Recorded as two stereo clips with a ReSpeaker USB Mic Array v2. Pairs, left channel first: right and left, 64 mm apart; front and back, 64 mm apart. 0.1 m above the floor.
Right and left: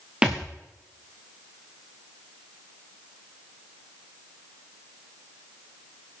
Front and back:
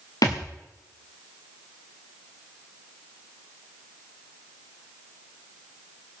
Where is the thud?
15° left, 3.5 m.